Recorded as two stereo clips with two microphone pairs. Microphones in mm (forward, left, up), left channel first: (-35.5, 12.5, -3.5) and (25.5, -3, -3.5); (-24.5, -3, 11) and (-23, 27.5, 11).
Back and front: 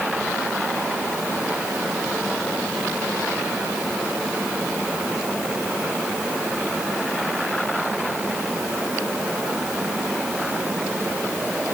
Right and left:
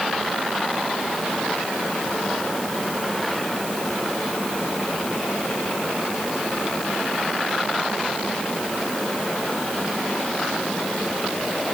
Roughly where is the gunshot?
No gunshot in this recording.